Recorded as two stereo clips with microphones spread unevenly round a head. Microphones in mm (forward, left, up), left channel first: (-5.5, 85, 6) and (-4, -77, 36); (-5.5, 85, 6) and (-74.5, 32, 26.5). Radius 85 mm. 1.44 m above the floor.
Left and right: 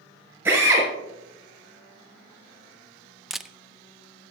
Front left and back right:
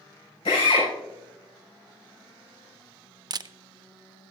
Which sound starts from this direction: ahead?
A drill, at 0.5 s.